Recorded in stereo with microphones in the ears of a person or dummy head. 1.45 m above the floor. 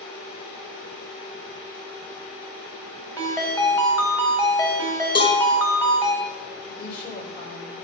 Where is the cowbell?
30° left (ahead or behind), 2 m.